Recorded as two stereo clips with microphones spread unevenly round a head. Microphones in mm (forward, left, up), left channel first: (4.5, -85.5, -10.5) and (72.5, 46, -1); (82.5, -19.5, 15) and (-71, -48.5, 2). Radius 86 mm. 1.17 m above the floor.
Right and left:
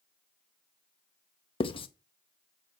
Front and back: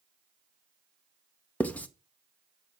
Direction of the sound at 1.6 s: 65° right.